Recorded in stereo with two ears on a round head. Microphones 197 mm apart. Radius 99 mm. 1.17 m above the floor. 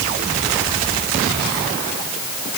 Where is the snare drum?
No snare drum in this recording.